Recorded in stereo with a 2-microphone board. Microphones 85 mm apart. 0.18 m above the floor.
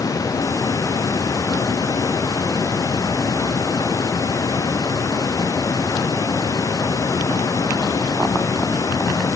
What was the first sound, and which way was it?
Only background noise.